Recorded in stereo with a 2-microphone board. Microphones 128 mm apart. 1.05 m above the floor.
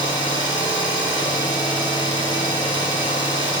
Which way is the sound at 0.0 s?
35° left (ahead or behind).